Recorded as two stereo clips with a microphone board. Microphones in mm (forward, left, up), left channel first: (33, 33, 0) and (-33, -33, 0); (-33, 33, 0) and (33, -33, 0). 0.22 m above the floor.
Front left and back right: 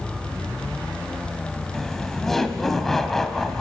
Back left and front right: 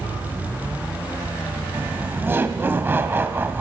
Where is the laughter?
35° right, 1.0 m.